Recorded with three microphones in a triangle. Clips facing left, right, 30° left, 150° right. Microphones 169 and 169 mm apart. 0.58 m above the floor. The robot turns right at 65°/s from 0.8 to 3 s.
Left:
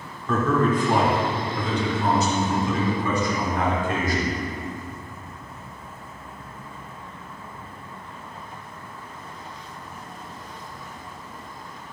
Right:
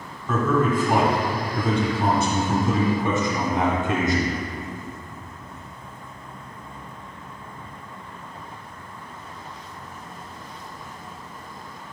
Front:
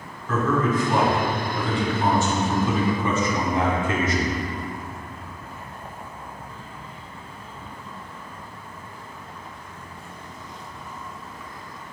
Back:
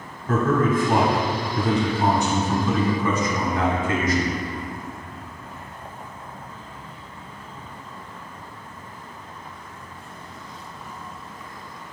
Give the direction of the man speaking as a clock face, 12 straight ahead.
6 o'clock.